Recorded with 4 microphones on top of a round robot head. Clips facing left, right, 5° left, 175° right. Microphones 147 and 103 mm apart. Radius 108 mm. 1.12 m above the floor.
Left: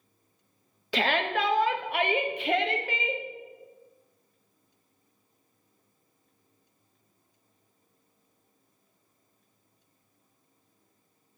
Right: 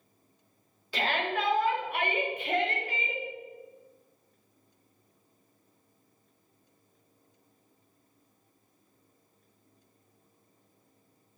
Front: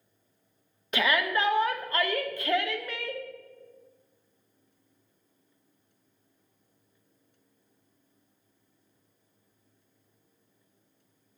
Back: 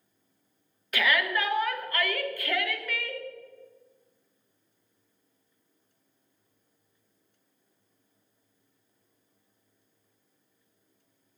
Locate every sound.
0.9 s a shout: 75° left, 1.1 m